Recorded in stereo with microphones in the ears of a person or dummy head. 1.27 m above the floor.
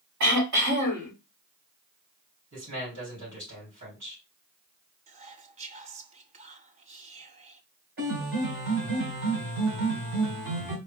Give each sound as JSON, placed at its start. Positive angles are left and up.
{"t": 0.2, "sound": "throat clearing", "side_deg": -65, "distance_m": 3.0}
{"t": 2.5, "sound": "a man speaking", "side_deg": -65, "distance_m": 3.0}
{"t": 5.1, "sound": "whispering", "side_deg": -35, "distance_m": 0.5}
{"t": 8.0, "sound": "a piano", "side_deg": -55, "distance_m": 2.5}